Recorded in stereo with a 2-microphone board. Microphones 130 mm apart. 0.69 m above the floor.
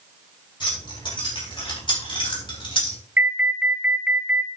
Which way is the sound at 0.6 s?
40° left (ahead or behind).